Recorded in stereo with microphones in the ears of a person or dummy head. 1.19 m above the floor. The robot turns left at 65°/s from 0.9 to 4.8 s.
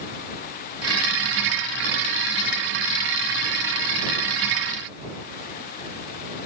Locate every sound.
Only background noise.